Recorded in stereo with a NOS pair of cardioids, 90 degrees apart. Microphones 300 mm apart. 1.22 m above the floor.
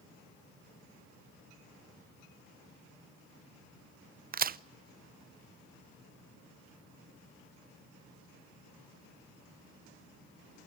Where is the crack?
30° right, 0.6 m.